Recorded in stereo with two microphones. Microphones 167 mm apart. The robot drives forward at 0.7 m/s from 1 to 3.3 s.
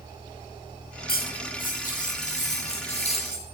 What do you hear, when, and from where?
1.1 s cutlery clinking: 60° left (ahead or behind), 2 m; by 3.5 s 35° left (ahead or behind), 3 m